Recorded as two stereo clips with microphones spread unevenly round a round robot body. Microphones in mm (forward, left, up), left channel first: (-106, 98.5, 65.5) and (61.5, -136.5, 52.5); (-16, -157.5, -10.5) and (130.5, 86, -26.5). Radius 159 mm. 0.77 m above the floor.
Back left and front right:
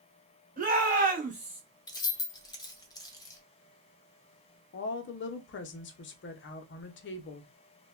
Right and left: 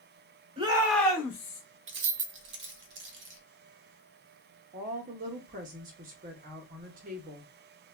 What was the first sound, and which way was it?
A shout, 5° right.